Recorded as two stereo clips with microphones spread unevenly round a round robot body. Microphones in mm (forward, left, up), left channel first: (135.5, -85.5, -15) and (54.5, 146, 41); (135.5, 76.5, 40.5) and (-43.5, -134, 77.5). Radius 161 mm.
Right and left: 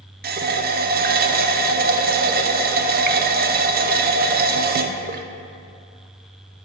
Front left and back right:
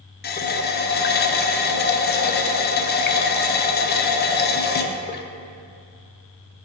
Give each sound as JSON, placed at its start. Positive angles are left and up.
{"t": 0.2, "sound": "a running tap", "azimuth_deg": 55, "distance_m": 0.5}